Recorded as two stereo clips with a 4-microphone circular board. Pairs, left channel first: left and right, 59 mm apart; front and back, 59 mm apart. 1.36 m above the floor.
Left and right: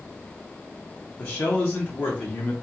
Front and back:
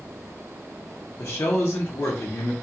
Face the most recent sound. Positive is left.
turn(degrees=40)